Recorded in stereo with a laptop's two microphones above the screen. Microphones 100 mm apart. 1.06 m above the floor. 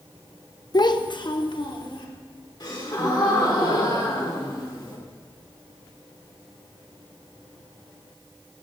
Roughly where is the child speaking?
Left.